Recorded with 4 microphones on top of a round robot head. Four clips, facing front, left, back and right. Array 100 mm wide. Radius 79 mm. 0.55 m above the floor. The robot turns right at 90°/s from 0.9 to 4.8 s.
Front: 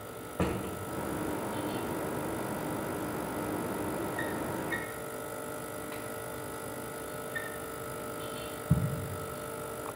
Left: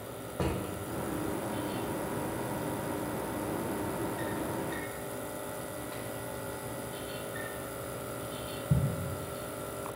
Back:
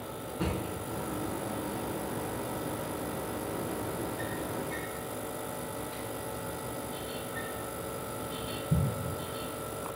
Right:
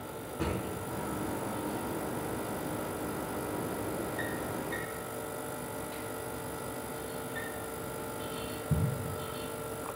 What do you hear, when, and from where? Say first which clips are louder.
0.4 s a drawer: left 1 dB, front 2 dB; 30° left, 1.7 m; by 8.9 s 20° left, 1.7 m